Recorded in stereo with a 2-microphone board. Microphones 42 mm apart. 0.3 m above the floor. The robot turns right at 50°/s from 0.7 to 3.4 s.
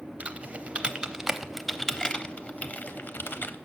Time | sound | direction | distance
0.2 | typing on a keyboard | 30° right (ahead or behind) | 0.6 m